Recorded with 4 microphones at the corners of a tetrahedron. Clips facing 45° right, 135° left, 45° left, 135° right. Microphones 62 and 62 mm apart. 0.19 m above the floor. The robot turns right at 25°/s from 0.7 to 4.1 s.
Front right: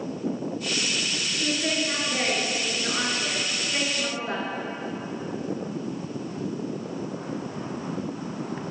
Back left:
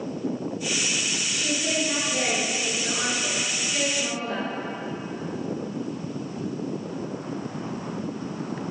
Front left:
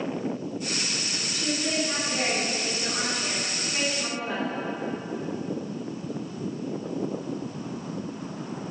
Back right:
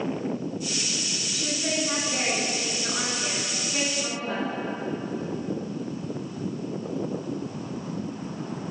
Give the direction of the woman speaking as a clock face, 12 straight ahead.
4 o'clock.